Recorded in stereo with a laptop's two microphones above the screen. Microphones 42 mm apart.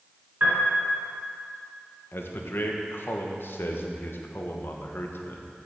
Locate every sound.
0.4 s a piano: 40° right (ahead or behind), 3 m
2.1 s a man speaking: 55° left (ahead or behind), 0.8 m